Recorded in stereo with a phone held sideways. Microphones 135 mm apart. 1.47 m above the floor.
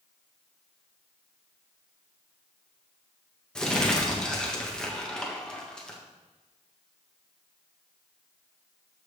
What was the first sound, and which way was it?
Crumpling, 5° left (ahead or behind).